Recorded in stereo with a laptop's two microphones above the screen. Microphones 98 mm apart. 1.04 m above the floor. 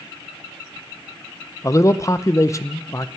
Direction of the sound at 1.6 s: 30° left (ahead or behind).